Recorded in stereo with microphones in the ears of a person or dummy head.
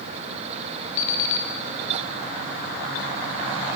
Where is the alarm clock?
75° left (ahead or behind), 1.4 m.